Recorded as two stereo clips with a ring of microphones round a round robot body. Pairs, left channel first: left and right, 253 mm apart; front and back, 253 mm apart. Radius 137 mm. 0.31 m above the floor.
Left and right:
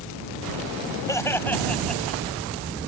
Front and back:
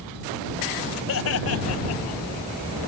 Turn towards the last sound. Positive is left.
turn(degrees=0)